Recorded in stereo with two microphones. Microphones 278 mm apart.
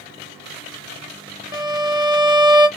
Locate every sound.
1.5 s a violin: 15° right (ahead or behind), 0.7 m